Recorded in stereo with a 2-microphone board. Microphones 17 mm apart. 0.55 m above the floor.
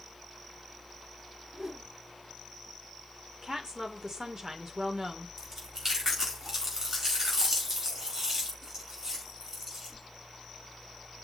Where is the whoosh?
40° right (ahead or behind), 1.8 m.